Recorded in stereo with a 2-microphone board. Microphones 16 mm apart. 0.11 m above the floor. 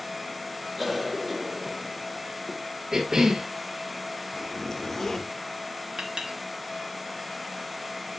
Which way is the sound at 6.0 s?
70° right (ahead or behind).